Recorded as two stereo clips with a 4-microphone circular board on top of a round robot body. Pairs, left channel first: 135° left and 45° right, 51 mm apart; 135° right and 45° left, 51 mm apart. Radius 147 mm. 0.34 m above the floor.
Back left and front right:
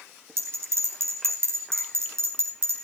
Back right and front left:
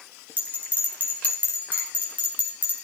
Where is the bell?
10° right, 4.5 m.